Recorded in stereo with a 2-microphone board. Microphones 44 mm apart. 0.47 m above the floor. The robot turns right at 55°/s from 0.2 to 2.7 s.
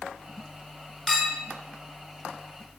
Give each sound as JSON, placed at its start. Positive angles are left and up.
{"t": 1.1, "sound": "a clink", "side_deg": 0, "distance_m": 1.8}